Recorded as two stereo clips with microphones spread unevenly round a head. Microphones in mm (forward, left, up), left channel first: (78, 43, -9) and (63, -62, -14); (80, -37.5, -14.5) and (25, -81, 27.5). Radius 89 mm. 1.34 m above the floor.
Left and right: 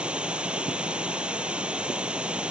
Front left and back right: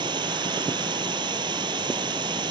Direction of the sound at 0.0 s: 175° left.